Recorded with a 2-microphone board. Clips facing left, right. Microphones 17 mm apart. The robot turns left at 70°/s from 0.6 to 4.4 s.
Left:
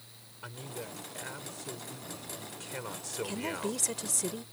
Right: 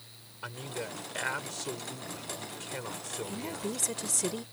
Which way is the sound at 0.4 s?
30° right.